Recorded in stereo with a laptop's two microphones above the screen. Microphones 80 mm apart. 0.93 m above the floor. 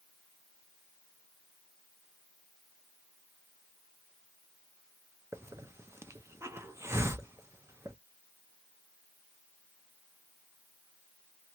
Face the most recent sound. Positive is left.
turn(degrees=-35)  # may be behind; listen again after turning